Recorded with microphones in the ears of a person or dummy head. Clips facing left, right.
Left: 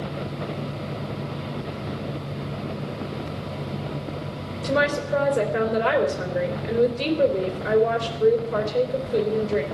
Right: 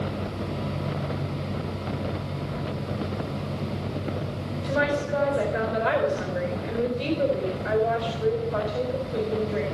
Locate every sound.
4.6 s a woman speaking: 55° left (ahead or behind), 3.5 m